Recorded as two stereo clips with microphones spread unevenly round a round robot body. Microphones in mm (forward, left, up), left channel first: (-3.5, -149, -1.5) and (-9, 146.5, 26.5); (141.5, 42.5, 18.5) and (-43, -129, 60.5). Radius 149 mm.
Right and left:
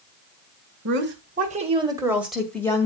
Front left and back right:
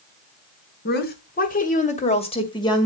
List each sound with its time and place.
0.8 s a woman speaking: 50° left, 1.9 m; by 2.9 s 20° right, 2.0 m